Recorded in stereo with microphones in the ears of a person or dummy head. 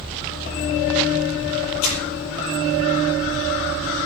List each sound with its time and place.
1.8 s crumpling: 75° left (ahead or behind), 5 m